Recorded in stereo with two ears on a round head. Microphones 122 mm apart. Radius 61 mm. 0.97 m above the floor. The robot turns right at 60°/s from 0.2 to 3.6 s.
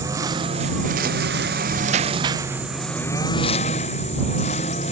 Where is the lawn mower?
155° right; by 4.9 s 50° left.